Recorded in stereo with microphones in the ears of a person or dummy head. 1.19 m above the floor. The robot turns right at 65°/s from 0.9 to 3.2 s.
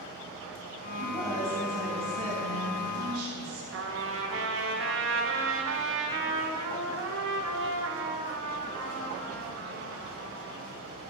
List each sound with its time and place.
1.0 s a woman speaking: 135° left, 3.5 m; by 3.6 s 80° right, 3.5 m
3.7 s a trumpet: 65° right (ahead or behind), 1.2 m